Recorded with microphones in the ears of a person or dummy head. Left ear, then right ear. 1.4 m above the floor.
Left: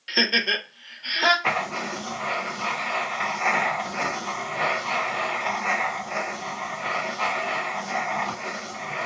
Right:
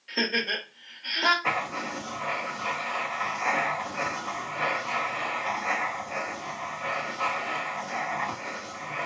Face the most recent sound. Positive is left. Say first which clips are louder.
# left 3 dB
turn(degrees=25)  # may be behind; listen again after turning